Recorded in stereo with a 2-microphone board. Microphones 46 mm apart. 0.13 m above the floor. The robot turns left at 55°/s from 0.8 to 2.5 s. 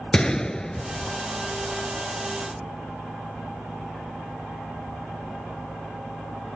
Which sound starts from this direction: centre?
A gunshot, at 0.1 s.